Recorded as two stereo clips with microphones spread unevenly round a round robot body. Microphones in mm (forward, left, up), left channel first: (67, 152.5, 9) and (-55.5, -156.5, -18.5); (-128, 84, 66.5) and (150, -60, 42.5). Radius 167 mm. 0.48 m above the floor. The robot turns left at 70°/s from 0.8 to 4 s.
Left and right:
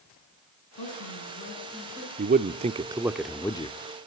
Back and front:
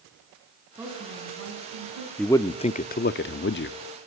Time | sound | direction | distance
0.8 | a woman speaking | 55° left | 7 m
2.2 | a man speaking | 115° right | 0.7 m